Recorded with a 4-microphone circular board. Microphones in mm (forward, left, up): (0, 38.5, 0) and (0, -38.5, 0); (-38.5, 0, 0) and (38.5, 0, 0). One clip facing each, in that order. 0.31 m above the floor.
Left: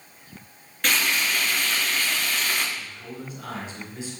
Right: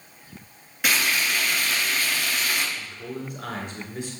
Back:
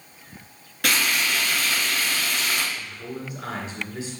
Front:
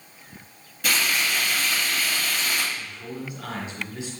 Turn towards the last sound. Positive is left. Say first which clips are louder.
# right 3 dB, back 1 dB
turn(degrees=-125)